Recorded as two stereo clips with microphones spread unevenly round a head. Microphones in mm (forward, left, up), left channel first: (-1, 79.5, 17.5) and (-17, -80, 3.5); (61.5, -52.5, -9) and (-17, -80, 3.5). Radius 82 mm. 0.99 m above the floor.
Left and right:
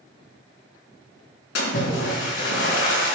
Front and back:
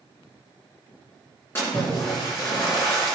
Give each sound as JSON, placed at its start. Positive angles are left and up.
{"t": 1.6, "sound": "a splash", "azimuth_deg": 95, "distance_m": 3.5}